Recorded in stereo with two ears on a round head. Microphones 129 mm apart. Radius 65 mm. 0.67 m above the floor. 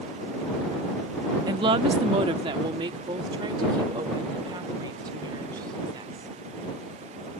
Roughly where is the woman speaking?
Right.